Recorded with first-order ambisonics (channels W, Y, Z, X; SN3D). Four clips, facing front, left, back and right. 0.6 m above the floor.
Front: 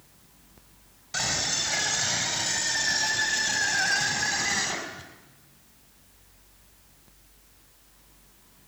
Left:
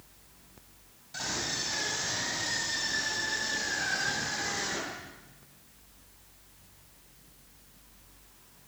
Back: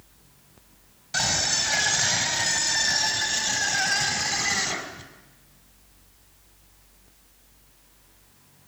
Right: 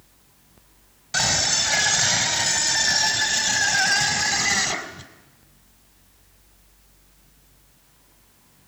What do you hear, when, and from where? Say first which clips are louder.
1.1 s a scream: right 12 dB, back 3 dB; 95° right, 3.5 m; by 5.1 s 85° right, 5.5 m